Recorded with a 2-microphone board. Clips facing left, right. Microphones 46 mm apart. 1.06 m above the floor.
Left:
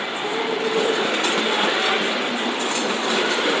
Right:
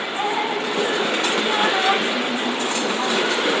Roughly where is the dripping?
Right.